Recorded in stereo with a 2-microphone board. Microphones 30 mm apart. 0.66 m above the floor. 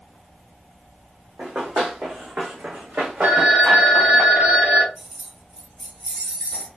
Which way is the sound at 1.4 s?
70° right (ahead or behind).